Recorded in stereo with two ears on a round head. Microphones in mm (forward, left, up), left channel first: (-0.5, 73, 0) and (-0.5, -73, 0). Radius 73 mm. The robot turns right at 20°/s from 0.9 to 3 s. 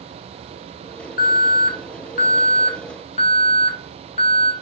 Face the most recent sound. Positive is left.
turn(degrees=130)